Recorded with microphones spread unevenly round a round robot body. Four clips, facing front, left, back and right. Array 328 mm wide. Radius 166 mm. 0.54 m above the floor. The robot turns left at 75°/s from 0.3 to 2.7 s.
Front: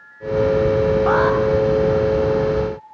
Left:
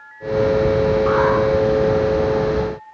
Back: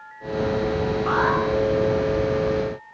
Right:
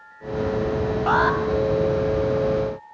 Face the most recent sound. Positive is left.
turn(degrees=-155)